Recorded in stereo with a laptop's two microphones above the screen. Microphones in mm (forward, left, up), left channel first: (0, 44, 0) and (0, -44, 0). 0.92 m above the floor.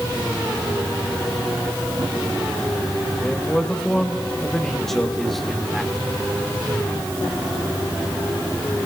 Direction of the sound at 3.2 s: 10° left (ahead or behind).